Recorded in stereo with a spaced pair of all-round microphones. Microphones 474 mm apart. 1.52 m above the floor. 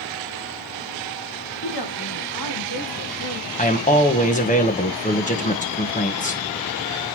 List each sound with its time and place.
1.6 s a woman speaking: 50° left (ahead or behind), 3 m
3.6 s a man speaking: 15° left (ahead or behind), 1.5 m